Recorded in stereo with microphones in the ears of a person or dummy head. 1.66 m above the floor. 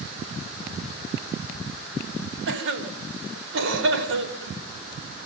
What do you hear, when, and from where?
2.5 s a cough: 70° right (ahead or behind), 4.5 m